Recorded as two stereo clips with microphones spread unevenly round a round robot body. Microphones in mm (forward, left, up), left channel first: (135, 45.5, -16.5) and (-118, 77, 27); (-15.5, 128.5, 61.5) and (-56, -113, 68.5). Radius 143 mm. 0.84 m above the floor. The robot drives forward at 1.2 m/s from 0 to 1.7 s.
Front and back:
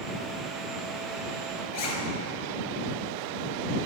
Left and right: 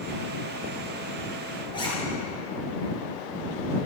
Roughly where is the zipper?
Ahead.